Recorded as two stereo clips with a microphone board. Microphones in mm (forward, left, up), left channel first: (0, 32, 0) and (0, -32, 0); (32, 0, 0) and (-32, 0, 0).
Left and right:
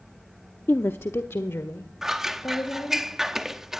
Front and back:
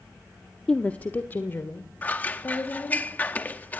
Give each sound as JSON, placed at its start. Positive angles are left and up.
{"t": 0.7, "sound": "a woman speaking", "azimuth_deg": 65, "distance_m": 0.7}
{"t": 2.0, "sound": "scissors", "azimuth_deg": -15, "distance_m": 1.0}